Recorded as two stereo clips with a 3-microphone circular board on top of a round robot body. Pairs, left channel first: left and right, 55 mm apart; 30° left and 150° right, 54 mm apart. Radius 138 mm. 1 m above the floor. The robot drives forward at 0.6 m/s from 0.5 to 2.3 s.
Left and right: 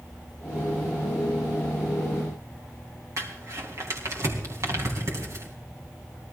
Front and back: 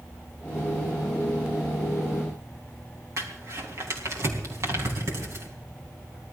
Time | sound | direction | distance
3.2 | crumpling | 115° right | 4 m